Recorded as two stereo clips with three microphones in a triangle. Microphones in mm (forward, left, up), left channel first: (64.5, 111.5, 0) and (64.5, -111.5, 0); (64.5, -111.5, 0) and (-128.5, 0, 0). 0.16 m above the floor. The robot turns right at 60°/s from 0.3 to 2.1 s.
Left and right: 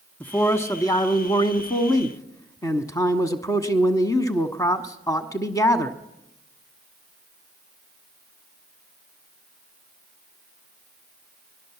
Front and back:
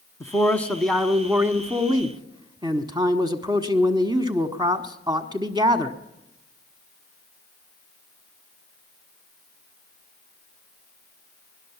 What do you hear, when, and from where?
0.2 s a man speaking: 25° left, 1.3 m; by 6.0 s 130° left, 1.3 m